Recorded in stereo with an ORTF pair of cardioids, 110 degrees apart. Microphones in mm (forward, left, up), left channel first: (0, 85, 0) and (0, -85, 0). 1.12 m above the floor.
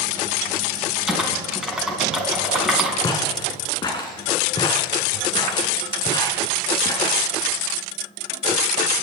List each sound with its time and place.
1.1 s typing on a keyboard: 5° right, 3.5 m
3.0 s footsteps: 25° left, 4 m